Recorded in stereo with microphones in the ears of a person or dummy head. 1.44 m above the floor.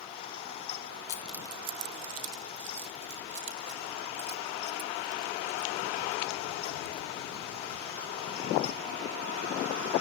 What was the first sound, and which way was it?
Keys jangling, 20° left (ahead or behind).